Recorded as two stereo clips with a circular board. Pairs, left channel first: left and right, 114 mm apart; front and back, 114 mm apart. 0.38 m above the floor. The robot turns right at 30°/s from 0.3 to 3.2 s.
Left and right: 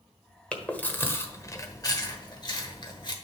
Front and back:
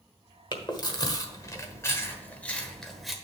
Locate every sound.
0.5 s chewing: 15° left, 1.2 m; by 3.1 s 95° left, 1.2 m